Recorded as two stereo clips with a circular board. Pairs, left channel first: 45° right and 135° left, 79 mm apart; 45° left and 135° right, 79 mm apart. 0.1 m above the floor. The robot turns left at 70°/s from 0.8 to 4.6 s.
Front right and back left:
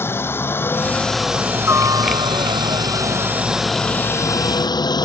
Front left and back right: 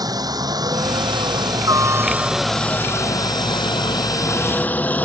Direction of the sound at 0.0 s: 105° right.